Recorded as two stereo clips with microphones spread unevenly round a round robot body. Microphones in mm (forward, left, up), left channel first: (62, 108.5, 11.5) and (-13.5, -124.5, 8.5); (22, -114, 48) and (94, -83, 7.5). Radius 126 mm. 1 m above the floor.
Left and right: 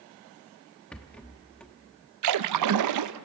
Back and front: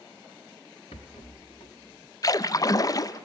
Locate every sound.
0.9 s a rattle: 160° left, 0.8 m
2.2 s a splash: 100° right, 0.6 m